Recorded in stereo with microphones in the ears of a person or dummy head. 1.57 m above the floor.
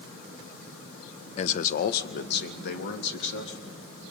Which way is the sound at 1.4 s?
40° left (ahead or behind).